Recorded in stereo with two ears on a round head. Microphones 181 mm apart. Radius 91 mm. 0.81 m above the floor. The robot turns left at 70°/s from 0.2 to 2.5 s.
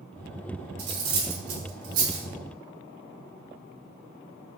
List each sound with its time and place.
0.8 s cutlery clinking: 50° right (ahead or behind), 0.9 m; by 2.3 s 25° right (ahead or behind), 0.9 m